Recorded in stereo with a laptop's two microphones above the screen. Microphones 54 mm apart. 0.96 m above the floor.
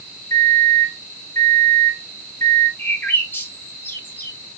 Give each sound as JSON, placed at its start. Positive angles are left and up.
{"t": 0.3, "sound": "a microwave", "side_deg": 75, "distance_m": 2.0}
{"t": 2.8, "sound": "a bird", "side_deg": 35, "distance_m": 1.6}